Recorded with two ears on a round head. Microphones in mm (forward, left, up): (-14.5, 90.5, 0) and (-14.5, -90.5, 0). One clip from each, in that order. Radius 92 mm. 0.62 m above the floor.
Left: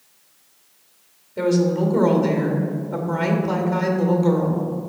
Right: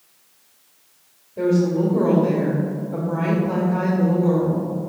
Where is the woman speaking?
65° left (ahead or behind), 1.6 m.